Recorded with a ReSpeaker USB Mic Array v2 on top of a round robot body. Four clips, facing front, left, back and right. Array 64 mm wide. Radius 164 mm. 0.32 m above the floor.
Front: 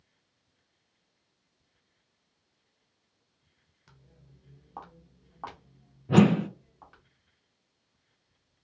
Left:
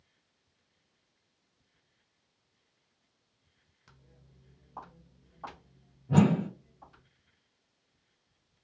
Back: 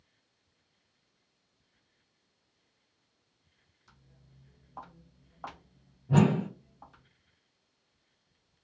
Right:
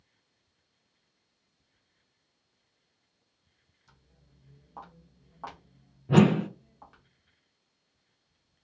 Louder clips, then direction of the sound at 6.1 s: Right 3 dB, front 4 dB; 50° right.